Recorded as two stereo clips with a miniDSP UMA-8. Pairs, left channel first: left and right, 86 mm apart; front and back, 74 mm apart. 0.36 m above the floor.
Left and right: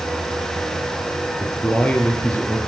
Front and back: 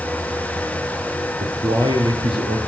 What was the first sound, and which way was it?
A man speaking, 165° left.